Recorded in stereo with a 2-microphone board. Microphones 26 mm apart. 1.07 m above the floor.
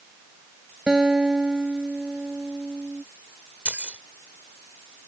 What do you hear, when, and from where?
0.9 s a guitar: 30° right (ahead or behind)
3.6 s keys jangling: 70° right (ahead or behind)